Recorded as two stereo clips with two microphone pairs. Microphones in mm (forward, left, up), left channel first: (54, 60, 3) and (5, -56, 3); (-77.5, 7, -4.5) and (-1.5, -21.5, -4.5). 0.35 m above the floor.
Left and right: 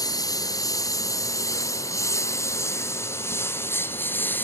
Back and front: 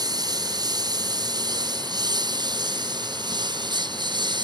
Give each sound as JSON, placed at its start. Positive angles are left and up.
{"t": 0.0, "sound": "a lawn mower", "azimuth_deg": 10}